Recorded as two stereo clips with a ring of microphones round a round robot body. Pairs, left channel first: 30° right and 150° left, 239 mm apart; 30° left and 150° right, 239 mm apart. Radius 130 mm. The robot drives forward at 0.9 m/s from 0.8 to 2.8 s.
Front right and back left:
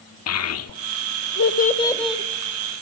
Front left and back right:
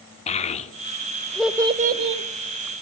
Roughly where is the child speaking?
Ahead right.